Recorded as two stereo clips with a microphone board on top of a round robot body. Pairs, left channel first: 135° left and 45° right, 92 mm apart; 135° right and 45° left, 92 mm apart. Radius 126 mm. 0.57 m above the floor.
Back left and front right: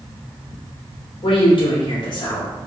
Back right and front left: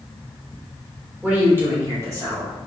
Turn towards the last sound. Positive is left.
turn(degrees=95)